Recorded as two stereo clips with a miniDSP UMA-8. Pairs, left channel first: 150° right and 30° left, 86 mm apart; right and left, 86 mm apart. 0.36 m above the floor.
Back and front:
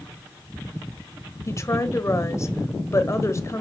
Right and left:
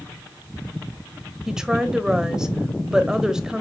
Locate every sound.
1.5 s a woman speaking: 170° left, 1.2 m